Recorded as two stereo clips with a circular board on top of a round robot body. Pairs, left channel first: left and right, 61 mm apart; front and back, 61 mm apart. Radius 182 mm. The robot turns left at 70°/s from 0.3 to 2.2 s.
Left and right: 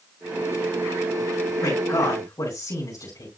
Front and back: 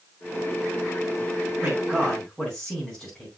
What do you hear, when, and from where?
1.6 s a man speaking: 125° left, 4.5 m; by 3.3 s 80° left, 4.5 m